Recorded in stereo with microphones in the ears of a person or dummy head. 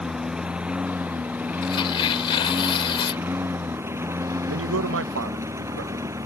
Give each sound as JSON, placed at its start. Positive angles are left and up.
{"t": 0.0, "sound": "a lawn mower", "side_deg": -5}
{"t": 1.6, "sound": "tearing paper", "side_deg": 30}
{"t": 4.5, "sound": "a man speaking", "side_deg": -80}